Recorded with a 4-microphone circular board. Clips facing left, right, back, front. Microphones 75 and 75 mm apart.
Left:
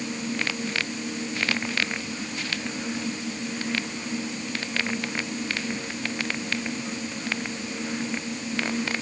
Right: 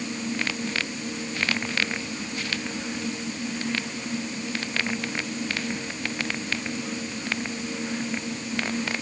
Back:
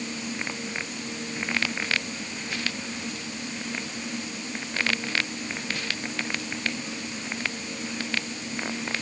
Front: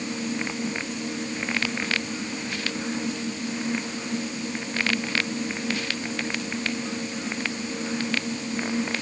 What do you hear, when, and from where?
Only background noise.